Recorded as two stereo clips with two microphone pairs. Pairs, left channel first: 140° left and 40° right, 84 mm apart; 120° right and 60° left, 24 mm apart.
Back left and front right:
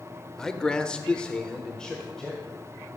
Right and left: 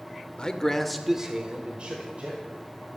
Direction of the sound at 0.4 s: 145° right.